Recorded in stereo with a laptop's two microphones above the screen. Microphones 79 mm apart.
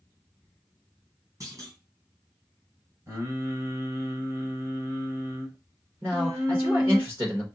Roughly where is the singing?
Right.